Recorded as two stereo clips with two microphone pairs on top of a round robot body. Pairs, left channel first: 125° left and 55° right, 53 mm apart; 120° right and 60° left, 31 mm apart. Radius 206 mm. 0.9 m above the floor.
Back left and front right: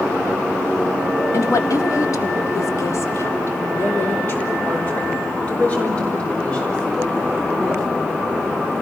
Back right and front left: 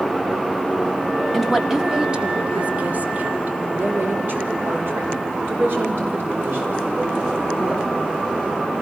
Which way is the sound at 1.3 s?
150° left.